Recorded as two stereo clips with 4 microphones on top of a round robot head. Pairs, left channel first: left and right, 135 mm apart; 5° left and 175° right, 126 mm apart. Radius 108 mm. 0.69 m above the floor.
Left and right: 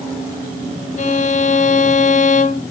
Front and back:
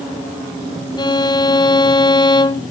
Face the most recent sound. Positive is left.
turn(degrees=60)